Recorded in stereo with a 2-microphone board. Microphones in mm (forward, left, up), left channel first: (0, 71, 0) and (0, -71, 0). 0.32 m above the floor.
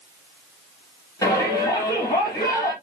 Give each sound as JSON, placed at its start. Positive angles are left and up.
{"t": 1.2, "sound": "a shout", "side_deg": 25, "distance_m": 6.5}